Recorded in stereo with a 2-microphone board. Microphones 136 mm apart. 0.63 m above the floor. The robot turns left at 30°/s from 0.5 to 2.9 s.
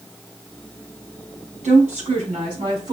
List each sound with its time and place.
1.6 s a woman speaking: 115° right, 3.5 m; by 2.9 s 150° right, 3.5 m